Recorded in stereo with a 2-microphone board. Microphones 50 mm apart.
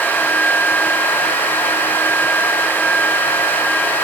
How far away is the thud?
I don't hear a thud.